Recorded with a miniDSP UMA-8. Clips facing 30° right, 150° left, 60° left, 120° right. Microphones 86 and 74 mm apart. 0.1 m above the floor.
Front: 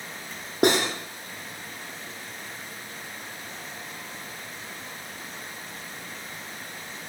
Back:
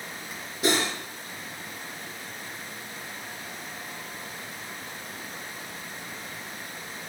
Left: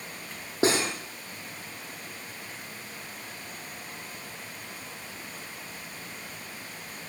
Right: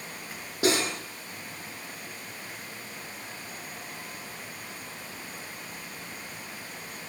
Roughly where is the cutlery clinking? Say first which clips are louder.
Front 4 dB, left 1 dB; ahead.